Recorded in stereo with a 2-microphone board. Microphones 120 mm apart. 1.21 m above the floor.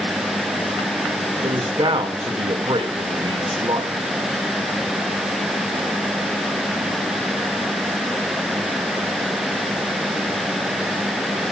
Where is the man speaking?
45° right (ahead or behind), 2 m.